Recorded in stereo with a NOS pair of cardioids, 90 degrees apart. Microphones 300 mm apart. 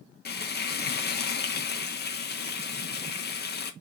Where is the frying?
35° left, 1.0 m.